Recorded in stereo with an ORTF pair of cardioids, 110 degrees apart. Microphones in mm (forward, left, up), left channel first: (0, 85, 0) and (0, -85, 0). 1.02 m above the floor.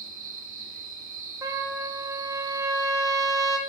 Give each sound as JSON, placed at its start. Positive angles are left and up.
{"t": 0.0, "sound": "an insect", "azimuth_deg": -55, "distance_m": 1.1}
{"t": 1.4, "sound": "a trumpet", "azimuth_deg": -20, "distance_m": 0.6}